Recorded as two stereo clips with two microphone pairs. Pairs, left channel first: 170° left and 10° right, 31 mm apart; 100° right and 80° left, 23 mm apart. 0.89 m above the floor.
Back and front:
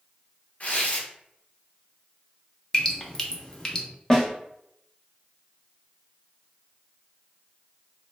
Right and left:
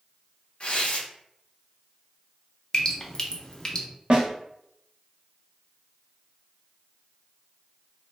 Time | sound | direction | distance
0.6 | tearing paper | 145° right | 0.7 m
2.7 | dripping | 140° right | 0.5 m
4.1 | a snare drum | 100° left | 0.8 m